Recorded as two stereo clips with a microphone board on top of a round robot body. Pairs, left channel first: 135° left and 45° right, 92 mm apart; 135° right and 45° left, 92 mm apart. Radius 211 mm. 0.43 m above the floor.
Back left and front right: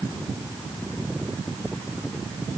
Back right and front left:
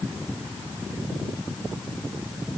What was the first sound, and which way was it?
Only background noise.